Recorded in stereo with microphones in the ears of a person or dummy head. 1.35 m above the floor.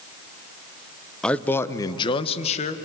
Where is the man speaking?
5° left (ahead or behind), 1.0 m; by 2.8 s 40° left (ahead or behind), 1.7 m.